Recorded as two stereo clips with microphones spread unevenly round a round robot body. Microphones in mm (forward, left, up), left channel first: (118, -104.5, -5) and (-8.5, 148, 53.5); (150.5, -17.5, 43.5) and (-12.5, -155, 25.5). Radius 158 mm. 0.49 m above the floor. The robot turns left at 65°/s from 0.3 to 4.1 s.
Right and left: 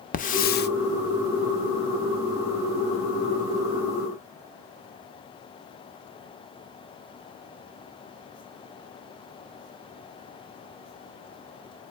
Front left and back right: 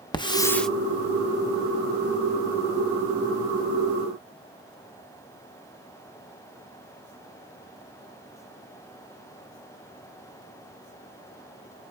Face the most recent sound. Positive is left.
turn(degrees=85)